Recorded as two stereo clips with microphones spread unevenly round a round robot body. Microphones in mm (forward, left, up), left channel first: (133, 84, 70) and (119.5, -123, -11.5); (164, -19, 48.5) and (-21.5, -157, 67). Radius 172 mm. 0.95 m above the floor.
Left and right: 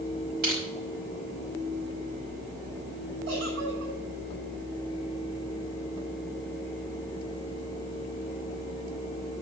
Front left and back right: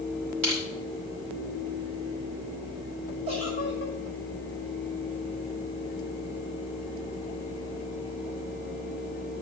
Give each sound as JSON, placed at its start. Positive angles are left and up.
{"t": 0.4, "sound": "crushing", "azimuth_deg": -150, "distance_m": 5.5}
{"t": 3.3, "sound": "a giggle", "azimuth_deg": -110, "distance_m": 4.5}